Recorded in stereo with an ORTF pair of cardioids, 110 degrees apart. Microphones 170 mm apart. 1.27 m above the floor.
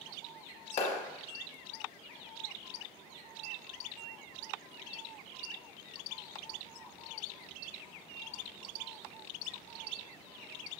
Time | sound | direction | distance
0.8 | a clap | 55° left | 1.0 m